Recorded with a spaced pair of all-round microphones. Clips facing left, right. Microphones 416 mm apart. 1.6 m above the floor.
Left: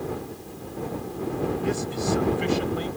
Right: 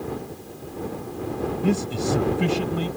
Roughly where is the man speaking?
Right.